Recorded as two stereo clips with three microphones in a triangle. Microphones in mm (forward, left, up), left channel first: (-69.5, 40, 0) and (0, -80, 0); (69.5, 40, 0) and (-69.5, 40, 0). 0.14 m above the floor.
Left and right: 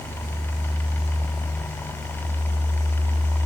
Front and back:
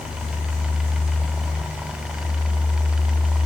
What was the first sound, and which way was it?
Only background noise.